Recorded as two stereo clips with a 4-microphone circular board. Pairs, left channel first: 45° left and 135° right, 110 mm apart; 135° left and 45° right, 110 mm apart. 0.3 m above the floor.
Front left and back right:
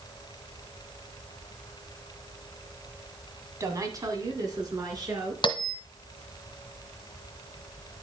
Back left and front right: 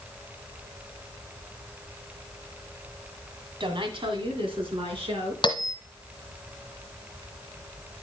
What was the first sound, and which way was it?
A woman speaking, 80° right.